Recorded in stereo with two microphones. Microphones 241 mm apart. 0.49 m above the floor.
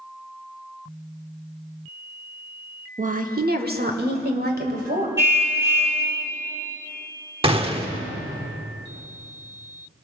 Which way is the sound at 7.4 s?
25° right (ahead or behind).